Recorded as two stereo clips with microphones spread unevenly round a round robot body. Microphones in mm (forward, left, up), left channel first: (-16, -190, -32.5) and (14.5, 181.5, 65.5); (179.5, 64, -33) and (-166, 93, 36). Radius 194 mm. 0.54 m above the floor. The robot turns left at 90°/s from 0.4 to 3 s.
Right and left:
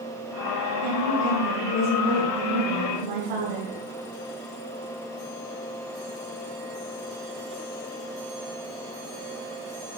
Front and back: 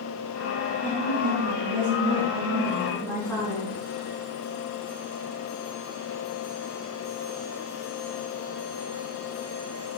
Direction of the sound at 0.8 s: 85° right.